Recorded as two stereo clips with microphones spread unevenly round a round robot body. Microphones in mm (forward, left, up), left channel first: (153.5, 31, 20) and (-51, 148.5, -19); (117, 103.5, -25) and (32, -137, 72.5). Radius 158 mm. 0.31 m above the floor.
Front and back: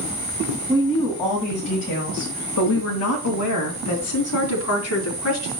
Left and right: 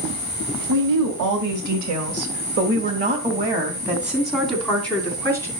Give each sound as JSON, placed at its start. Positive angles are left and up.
{"t": 0.7, "sound": "a woman speaking", "azimuth_deg": -130, "distance_m": 2.5}